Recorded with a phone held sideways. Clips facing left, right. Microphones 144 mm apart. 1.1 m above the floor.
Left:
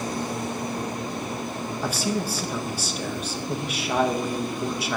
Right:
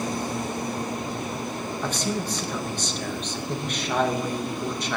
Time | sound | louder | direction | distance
1.8 | a man speaking | left 2 dB | 10° left (ahead or behind) | 1.1 m